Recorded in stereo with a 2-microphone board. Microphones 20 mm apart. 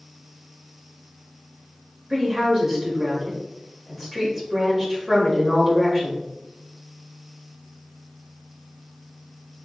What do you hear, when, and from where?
2.1 s a woman speaking: 15° right (ahead or behind), 2.0 m